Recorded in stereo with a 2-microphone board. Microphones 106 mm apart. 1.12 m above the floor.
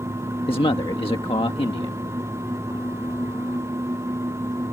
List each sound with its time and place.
0.5 s a man speaking: 55° left (ahead or behind)